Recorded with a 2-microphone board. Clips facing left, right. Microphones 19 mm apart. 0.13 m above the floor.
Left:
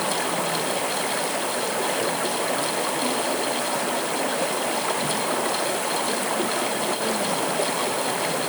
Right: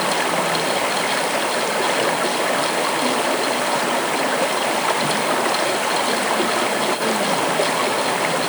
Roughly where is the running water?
Right.